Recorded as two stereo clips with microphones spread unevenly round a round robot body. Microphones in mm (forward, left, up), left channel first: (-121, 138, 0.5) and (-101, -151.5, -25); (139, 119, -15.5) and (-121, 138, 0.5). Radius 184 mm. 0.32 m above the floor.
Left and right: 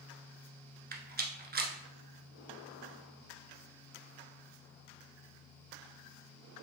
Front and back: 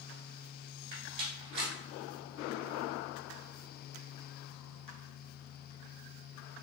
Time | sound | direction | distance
0.9 | a rattle | 150° right | 0.8 m